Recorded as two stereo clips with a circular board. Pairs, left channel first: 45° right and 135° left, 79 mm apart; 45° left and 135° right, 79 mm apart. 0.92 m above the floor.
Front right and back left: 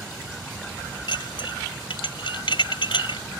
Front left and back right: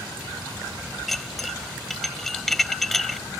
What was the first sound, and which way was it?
Dishes clattering, 40° right.